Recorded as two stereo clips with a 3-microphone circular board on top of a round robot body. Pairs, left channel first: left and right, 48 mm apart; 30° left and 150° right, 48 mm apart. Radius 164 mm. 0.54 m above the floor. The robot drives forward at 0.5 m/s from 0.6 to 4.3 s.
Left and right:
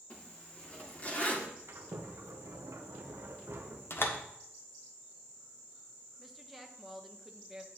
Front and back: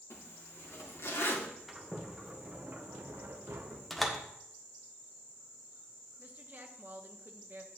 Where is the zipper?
30° left, 1.9 m; by 1.5 s 40° left, 1.6 m.